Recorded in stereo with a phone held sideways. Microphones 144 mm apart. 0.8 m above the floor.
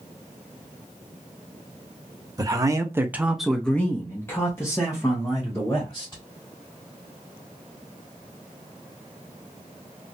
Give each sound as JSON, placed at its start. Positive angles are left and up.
{"t": 2.4, "sound": "a man speaking", "side_deg": -25, "distance_m": 0.8}